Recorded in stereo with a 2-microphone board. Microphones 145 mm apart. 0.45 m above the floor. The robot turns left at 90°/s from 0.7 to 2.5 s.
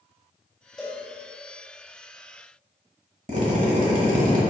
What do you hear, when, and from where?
0.8 s a cowbell: 30° left (ahead or behind), 2.0 m; by 1.0 s 45° left (ahead or behind), 2.0 m
3.3 s a drill: 60° right (ahead or behind), 1.0 m